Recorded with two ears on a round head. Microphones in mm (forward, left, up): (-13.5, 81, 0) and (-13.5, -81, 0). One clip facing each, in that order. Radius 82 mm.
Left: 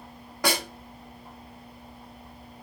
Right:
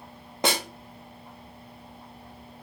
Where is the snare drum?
20° right (ahead or behind), 0.5 m.